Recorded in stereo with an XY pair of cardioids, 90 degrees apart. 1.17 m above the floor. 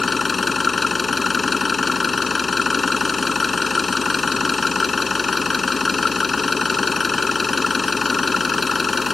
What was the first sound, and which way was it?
An engine running, 35° left.